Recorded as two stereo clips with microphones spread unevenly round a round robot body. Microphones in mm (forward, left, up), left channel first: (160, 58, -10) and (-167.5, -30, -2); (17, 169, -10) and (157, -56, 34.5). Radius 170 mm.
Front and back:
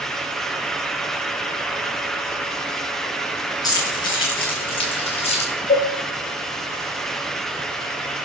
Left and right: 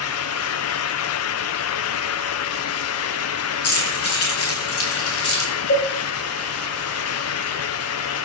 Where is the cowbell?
85° left, 6 m.